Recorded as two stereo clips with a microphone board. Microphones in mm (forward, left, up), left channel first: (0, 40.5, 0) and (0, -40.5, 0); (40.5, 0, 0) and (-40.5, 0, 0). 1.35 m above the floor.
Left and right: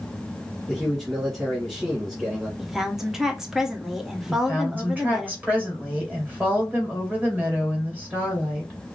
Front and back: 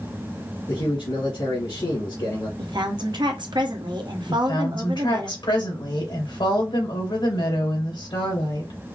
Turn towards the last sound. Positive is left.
turn(degrees=-20)